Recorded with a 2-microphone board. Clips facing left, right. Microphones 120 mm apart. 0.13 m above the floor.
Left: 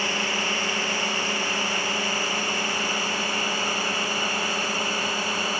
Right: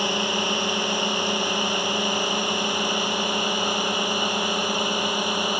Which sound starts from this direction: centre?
A drone, at 0.0 s.